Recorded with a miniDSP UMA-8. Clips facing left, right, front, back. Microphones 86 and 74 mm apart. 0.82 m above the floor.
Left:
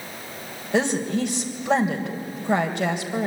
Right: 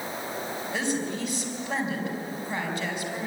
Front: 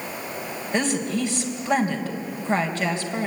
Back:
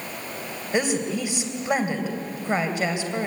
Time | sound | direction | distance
0.7 | a woman speaking | 105° left | 3.5 m